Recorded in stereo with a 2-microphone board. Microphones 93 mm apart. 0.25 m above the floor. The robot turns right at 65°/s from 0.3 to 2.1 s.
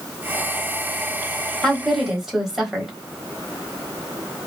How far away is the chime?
I don't hear a chime.